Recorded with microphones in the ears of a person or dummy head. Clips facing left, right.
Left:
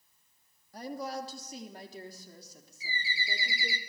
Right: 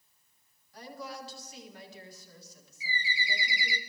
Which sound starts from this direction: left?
A woman speaking, at 0.7 s.